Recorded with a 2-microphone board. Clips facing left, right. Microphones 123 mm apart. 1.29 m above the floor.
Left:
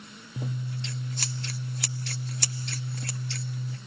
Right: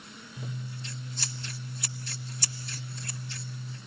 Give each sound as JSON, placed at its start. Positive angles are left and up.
{"t": 0.4, "sound": "scissors", "side_deg": 70, "distance_m": 1.4}